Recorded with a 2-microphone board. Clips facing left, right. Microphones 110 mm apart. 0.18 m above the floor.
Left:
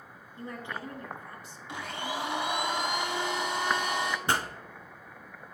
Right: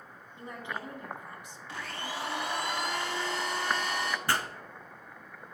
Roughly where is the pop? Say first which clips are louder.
Left 1 dB; left.